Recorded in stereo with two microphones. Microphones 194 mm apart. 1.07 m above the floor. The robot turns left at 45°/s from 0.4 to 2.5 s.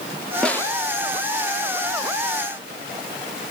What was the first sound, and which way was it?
A snare drum, 5° left (ahead or behind).